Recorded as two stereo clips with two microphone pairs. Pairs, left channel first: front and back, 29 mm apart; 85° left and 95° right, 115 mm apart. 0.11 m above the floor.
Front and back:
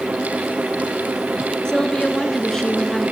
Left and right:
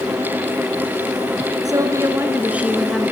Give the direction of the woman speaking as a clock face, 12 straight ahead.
2 o'clock.